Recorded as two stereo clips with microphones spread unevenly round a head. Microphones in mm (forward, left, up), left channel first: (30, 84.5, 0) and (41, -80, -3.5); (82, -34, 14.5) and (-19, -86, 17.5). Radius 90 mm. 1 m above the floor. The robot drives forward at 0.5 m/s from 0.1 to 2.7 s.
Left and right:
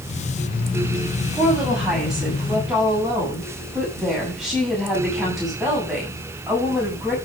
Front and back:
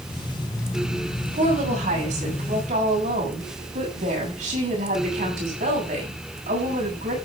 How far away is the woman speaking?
About 6.5 m.